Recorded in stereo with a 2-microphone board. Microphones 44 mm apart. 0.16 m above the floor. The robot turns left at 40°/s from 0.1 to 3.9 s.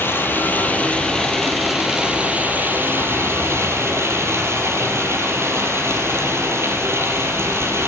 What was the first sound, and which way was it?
Running water, 60° left.